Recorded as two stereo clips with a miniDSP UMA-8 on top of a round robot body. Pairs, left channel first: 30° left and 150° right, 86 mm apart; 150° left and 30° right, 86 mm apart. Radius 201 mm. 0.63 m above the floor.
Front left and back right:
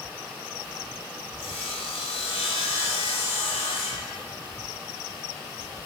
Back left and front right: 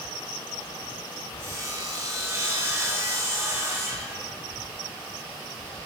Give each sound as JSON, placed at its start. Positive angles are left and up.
{"t": 1.4, "sound": "sawing", "azimuth_deg": 30, "distance_m": 0.7}